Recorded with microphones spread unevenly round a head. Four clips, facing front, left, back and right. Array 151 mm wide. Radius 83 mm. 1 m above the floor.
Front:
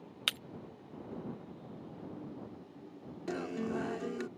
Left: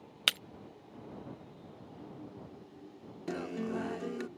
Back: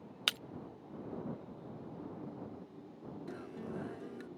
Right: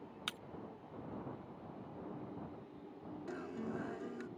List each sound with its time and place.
0.3 s breaking glass: 105° left
3.3 s a guitar: 70° left